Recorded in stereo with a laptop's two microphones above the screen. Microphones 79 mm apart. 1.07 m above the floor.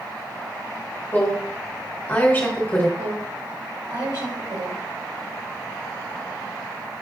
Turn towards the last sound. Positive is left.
turn(degrees=-75)  # may be behind; listen again after turning